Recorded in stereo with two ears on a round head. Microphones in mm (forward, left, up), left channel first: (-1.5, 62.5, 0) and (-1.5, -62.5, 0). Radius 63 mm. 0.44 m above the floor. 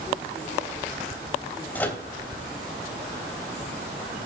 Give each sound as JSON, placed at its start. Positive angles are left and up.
{"t": 1.8, "sound": "a microwave", "side_deg": 10, "distance_m": 2.5}